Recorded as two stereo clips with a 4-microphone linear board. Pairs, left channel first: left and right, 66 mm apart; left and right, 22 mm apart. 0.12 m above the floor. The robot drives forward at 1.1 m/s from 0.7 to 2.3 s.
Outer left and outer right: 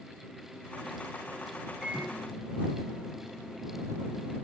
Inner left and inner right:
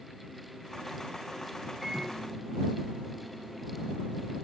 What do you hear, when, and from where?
1.8 s a microwave: 15° right (ahead or behind), 5 m; by 4.3 s 10° right (ahead or behind), 5.5 m